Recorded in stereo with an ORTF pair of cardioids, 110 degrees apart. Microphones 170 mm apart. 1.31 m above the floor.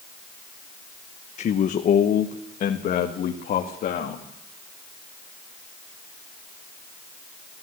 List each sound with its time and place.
1.4 s a man speaking: 45° left, 1.1 m; by 4.2 s 55° left, 2.5 m